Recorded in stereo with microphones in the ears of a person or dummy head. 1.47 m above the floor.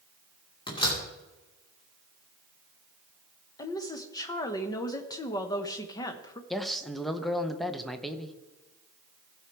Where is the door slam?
30° left (ahead or behind), 2.5 m.